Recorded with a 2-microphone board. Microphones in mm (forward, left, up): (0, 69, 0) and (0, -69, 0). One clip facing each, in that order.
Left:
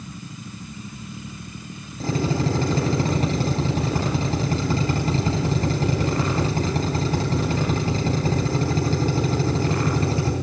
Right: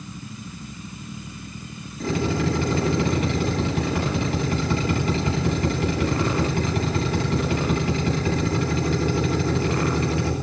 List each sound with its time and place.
2.0 s a drill: 35° left (ahead or behind), 9.5 m